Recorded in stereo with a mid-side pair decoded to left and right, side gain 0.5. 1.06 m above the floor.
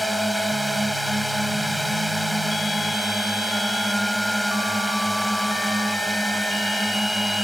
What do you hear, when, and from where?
0.0 s a drone: straight ahead